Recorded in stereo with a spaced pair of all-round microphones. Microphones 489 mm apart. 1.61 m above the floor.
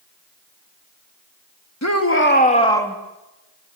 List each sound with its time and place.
1.8 s a shout: 35° left (ahead or behind), 3 m; by 3.0 s centre (ahead or behind), 3 m